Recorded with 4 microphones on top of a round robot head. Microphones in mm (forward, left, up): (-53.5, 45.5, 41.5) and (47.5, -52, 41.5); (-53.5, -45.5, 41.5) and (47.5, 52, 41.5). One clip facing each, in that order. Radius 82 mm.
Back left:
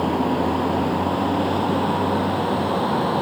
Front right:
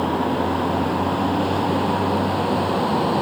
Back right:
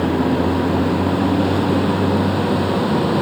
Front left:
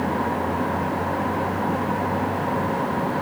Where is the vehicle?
135° right; by 3.2 s 125° right.